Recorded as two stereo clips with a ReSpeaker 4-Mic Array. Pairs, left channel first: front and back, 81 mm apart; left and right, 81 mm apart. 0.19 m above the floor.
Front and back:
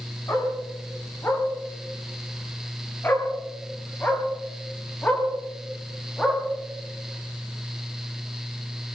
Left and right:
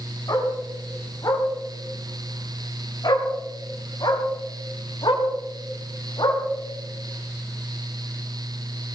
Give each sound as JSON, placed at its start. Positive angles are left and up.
{"t": 0.3, "sound": "a dog barking", "azimuth_deg": 55, "distance_m": 8.5}